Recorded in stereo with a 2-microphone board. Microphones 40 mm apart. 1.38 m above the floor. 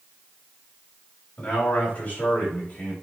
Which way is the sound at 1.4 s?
30° left (ahead or behind).